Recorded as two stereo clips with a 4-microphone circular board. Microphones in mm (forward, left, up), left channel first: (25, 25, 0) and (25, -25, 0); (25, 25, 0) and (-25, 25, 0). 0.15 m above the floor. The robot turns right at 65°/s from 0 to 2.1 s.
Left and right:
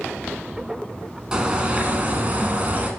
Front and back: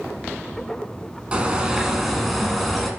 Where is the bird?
145° right, 1.2 m; by 2.9 s 95° right, 1.2 m.